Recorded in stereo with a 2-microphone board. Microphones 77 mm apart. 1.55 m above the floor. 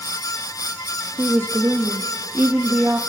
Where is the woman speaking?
30° right (ahead or behind), 0.7 m.